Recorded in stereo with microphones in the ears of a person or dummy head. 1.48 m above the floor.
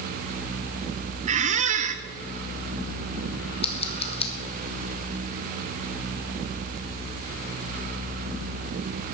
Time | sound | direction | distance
1.3 | a squeak | 40° right (ahead or behind) | 0.7 m
3.6 | scissors | 30° left (ahead or behind) | 1.1 m